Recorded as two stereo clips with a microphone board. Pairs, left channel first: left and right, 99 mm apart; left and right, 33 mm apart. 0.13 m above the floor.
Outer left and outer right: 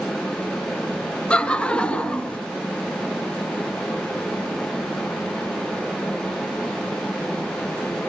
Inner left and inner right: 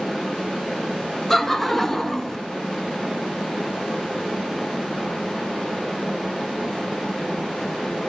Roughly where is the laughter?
Centre.